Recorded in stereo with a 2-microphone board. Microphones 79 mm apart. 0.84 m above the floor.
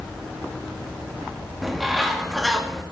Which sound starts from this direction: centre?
A bird, at 1.6 s.